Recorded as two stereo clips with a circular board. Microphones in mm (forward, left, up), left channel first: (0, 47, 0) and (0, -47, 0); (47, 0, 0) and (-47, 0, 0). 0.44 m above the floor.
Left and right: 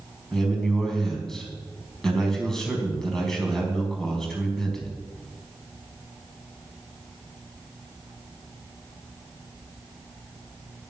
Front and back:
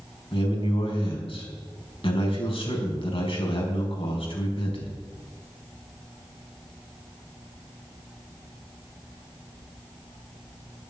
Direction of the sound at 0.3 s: 5° left.